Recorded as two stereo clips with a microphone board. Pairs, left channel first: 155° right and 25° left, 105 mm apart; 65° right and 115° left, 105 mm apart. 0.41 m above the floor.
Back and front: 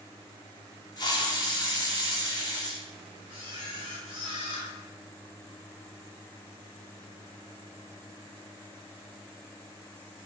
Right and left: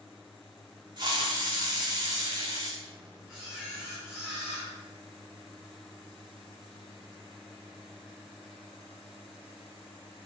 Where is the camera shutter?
30° left, 2.0 m.